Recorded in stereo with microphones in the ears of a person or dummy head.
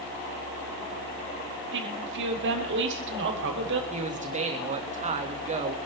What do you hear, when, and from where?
1.7 s a woman speaking: 60° right (ahead or behind), 3 m
3.9 s a man speaking: 35° right (ahead or behind), 2 m